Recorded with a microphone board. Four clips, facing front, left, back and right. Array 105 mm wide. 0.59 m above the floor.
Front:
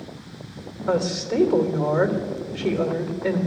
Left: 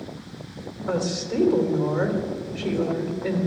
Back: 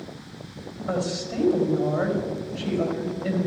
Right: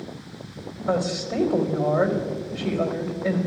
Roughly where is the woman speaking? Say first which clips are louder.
Right 2 dB, front 5 dB; ahead.